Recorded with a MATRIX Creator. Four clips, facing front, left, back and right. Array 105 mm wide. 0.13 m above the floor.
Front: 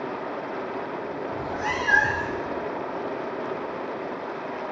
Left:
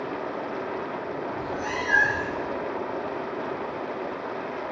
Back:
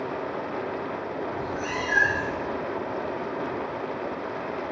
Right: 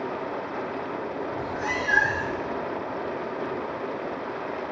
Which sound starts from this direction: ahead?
A cat meowing, at 1.3 s.